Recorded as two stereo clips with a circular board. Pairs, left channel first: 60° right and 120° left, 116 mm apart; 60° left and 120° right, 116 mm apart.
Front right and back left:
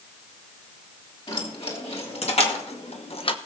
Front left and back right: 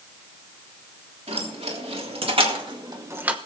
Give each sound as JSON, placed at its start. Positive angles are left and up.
{"t": 1.3, "sound": "keys jangling", "azimuth_deg": -95, "distance_m": 3.5}